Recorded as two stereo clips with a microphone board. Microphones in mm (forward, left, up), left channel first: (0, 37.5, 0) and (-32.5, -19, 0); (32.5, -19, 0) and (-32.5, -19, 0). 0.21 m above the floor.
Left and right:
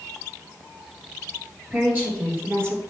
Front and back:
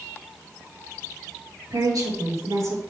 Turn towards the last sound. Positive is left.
turn(degrees=-160)